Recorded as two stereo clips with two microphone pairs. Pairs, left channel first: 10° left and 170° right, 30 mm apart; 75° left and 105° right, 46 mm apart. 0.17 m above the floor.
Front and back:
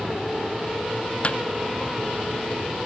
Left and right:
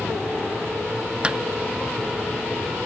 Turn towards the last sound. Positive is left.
turn(degrees=-35)